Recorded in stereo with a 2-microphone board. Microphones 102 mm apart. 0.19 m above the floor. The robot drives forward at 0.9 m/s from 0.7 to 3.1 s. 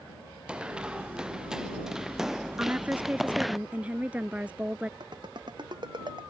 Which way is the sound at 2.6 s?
20° right (ahead or behind).